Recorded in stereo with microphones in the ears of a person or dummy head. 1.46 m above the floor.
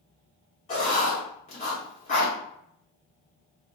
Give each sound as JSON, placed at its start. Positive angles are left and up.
{"t": 0.7, "sound": "writing", "side_deg": 35, "distance_m": 1.1}